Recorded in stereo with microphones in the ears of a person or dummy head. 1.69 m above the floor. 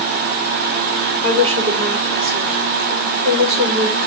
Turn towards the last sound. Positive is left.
turn(degrees=-40)  # may be behind; listen again after turning